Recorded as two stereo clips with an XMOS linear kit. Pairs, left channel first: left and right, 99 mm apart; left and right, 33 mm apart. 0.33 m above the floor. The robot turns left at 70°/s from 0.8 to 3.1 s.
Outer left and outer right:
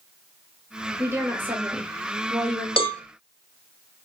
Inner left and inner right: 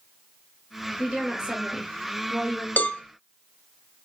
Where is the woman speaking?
20° right (ahead or behind), 1.4 m; by 2.7 s 5° left (ahead or behind), 1.4 m.